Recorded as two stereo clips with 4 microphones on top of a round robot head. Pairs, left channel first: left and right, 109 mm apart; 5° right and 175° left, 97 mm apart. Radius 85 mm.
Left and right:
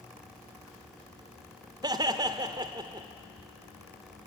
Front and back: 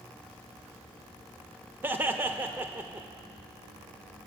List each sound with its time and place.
1.8 s laughter: 125° right, 1.1 m